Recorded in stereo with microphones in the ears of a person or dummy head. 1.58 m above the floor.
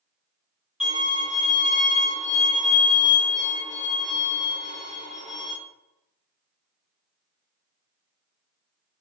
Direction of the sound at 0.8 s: 5° right (ahead or behind).